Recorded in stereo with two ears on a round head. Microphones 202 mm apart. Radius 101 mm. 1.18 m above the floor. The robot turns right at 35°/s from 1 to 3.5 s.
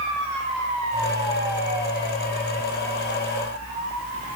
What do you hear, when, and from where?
Only background noise.